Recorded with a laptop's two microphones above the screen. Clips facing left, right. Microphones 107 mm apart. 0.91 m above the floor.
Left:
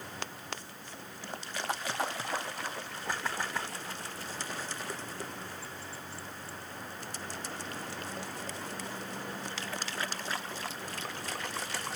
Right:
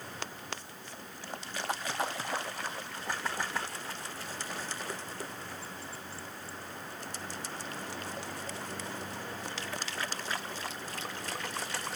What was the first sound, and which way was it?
Only background noise.